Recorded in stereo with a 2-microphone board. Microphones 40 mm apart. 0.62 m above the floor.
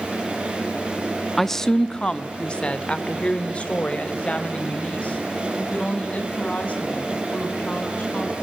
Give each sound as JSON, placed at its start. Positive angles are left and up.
{"t": 1.4, "sound": "a woman speaking", "side_deg": 5, "distance_m": 0.7}